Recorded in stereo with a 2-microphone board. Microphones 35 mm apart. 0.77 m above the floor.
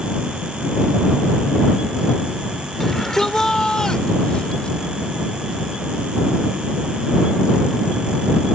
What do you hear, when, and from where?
2.8 s a shout: 15° left (ahead or behind); by 4.8 s 30° left (ahead or behind)